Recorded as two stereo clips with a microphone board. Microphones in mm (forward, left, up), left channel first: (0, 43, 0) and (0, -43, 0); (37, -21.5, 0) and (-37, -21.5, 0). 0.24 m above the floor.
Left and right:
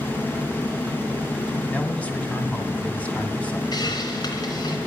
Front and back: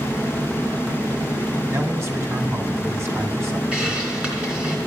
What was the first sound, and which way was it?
A man speaking, 160° left.